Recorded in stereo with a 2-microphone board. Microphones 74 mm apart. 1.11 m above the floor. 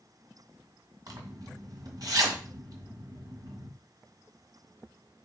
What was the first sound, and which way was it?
A zipper, 60° right (ahead or behind).